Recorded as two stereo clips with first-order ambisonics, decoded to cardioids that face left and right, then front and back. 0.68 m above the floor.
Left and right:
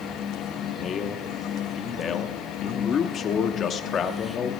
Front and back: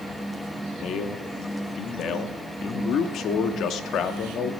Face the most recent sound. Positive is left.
turn(degrees=35)